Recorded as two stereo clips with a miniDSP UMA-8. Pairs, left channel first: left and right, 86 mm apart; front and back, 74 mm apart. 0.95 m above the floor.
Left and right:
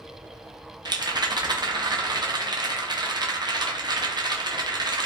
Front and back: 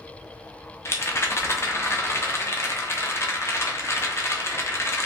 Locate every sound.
0.8 s a rattle: 55° right, 0.5 m